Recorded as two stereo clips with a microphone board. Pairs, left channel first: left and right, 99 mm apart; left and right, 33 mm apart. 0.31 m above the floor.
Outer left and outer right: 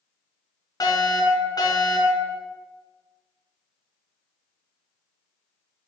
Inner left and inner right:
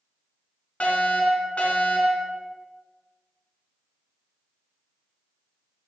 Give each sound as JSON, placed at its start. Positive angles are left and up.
{"t": 0.8, "sound": "a fire alarm", "side_deg": 40, "distance_m": 3.0}